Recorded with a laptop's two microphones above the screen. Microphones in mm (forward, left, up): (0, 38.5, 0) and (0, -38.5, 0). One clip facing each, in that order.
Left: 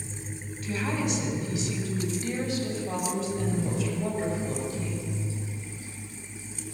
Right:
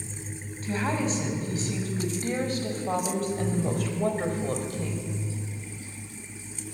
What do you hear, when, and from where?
0.6 s a woman speaking: 35° right (ahead or behind), 8 m; by 5.2 s 60° right (ahead or behind), 5.5 m